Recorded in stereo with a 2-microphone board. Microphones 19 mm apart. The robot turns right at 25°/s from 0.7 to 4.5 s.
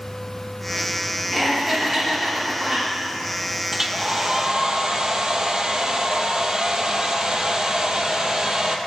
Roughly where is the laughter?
Behind.